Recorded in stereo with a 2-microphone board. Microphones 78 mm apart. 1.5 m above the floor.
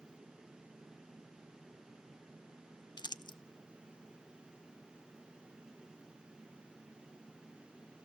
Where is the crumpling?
65° left (ahead or behind), 0.7 m.